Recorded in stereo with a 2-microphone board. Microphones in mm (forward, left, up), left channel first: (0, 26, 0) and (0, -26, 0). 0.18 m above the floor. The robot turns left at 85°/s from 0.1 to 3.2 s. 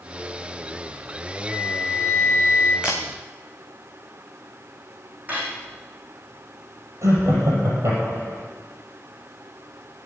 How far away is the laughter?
About 5 m.